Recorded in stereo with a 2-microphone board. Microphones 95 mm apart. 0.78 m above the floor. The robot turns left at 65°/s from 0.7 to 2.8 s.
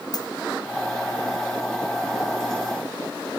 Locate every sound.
0.1 s a dropped coin: 50° left (ahead or behind), 2.5 m